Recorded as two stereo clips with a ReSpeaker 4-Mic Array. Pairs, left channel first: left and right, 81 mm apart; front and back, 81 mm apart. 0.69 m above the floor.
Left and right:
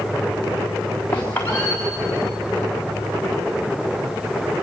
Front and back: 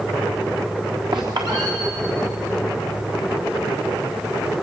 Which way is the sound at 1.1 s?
155° left.